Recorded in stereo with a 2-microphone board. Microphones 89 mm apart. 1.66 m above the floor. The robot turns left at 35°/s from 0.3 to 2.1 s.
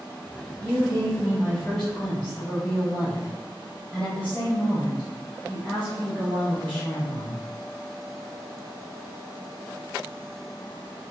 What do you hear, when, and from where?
0.6 s a woman speaking: 145° right, 0.9 m; by 7.4 s 160° left, 0.9 m